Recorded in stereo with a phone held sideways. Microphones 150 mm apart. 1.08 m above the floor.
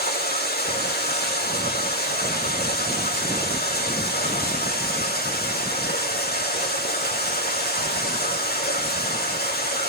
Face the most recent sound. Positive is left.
turn(degrees=75)  # may be behind; listen again after turning